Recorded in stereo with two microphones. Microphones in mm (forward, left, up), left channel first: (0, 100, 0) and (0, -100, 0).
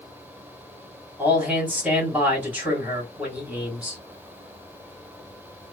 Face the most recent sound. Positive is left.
turn(degrees=-5)  # may be behind; listen again after turning